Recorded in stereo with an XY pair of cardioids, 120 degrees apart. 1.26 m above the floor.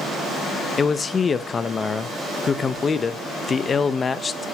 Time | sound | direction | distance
0.8 | a man speaking | 30° left | 0.9 m